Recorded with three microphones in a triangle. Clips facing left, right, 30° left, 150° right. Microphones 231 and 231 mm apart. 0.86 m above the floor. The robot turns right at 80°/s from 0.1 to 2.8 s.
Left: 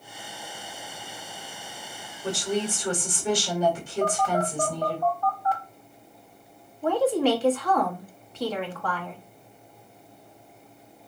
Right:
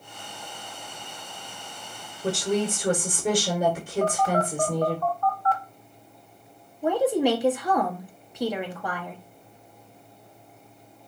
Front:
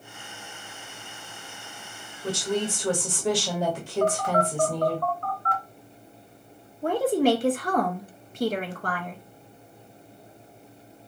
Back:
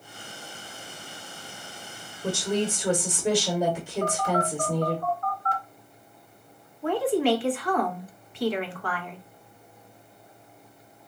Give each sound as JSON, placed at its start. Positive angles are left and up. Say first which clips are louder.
{"t": 2.2, "sound": "a woman speaking", "louder": "right 3 dB, back 1 dB", "azimuth_deg": -115, "distance_m": 1.2}
{"t": 4.0, "sound": "a phone buzzing", "louder": "even, front 3 dB", "azimuth_deg": 15, "distance_m": 1.0}
{"t": 6.8, "sound": "a woman speaking", "louder": "even, front 2 dB", "azimuth_deg": -15, "distance_m": 0.8}